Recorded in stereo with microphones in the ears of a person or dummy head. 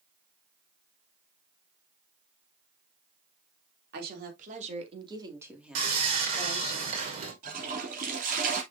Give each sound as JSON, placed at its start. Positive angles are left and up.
{"t": 3.9, "sound": "a woman speaking", "side_deg": -65, "distance_m": 3.0}
{"t": 5.8, "sound": "sawing", "side_deg": -40, "distance_m": 2.5}
{"t": 7.4, "sound": "a toilet flushing", "side_deg": -55, "distance_m": 3.0}